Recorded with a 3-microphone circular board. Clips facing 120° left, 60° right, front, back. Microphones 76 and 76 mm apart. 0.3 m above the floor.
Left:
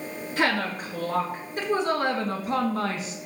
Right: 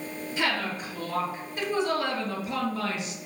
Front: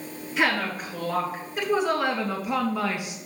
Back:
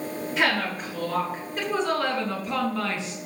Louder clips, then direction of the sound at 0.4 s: Left 4 dB, front 1 dB; 90° left.